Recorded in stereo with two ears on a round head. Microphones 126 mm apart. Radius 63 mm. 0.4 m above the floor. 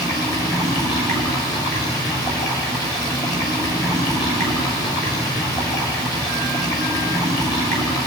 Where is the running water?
30° left (ahead or behind), 6.5 m.